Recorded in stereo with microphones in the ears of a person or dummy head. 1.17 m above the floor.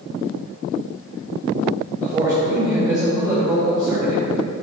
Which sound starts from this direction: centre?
A man speaking, at 2.0 s.